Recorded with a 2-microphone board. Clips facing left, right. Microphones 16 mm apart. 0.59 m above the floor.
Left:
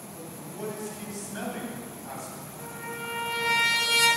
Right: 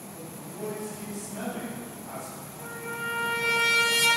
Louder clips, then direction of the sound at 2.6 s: Right 3 dB; 15° left (ahead or behind).